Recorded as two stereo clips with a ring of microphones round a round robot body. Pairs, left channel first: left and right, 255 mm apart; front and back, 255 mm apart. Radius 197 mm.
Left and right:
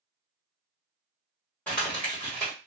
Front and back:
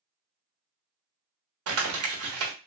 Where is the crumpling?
175° left, 1.2 m.